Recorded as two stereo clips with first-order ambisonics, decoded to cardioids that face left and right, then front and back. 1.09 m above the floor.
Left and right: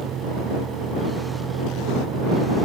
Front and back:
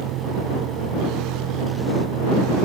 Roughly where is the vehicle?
Behind right.